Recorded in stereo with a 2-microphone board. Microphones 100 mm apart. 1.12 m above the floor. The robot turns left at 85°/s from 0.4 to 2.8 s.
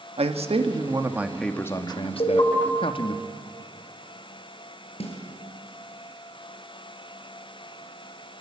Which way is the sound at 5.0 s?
80° left.